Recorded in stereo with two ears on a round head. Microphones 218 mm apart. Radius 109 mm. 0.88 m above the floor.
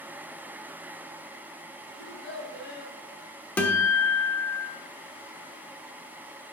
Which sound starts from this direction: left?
A child speaking, at 2.0 s.